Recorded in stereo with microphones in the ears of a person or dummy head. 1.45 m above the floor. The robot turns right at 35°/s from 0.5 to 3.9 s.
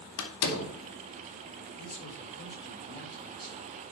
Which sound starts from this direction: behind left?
A man speaking, at 1.8 s.